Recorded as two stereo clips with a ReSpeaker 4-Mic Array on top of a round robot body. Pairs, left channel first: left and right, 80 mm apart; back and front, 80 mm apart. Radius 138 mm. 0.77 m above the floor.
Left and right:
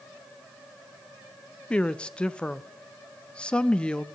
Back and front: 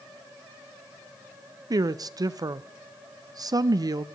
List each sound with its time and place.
1.7 s a woman speaking: 15° left, 0.6 m